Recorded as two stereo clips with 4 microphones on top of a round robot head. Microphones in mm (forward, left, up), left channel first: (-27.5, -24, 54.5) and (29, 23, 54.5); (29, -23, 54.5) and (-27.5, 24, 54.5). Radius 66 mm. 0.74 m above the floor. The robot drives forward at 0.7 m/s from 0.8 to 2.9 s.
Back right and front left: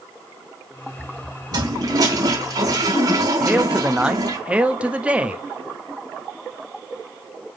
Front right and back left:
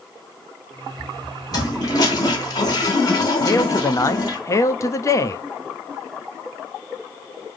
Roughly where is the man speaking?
Ahead right.